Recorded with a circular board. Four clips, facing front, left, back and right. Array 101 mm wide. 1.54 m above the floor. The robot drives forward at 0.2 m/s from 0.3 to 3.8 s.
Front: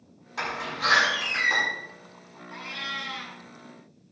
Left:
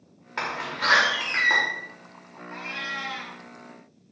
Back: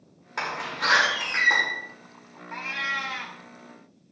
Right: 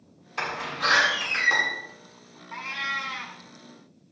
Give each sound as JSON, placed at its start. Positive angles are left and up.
{"t": 0.4, "sound": "a door slam", "azimuth_deg": 125, "distance_m": 5.0}
{"t": 2.5, "sound": "a cat meowing", "azimuth_deg": 170, "distance_m": 1.9}